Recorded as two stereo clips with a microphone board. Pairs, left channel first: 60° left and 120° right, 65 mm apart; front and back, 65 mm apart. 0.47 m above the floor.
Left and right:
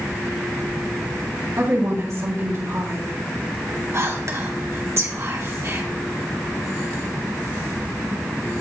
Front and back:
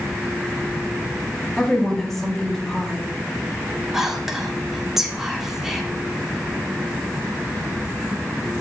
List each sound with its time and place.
1.6 s a woman speaking: 85° right, 3 m
3.9 s whispering: 100° right, 2 m